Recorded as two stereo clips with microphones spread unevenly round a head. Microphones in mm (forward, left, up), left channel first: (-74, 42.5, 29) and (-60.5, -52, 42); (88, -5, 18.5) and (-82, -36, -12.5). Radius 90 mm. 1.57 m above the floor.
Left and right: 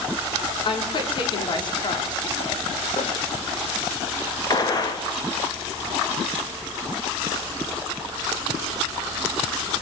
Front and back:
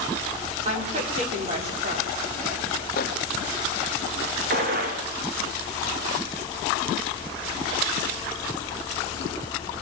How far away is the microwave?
About 1.7 m.